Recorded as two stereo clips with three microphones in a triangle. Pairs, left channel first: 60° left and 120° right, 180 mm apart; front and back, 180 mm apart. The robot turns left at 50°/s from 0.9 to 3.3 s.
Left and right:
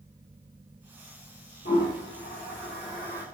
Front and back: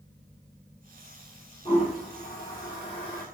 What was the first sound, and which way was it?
A toilet flushing, 60° left.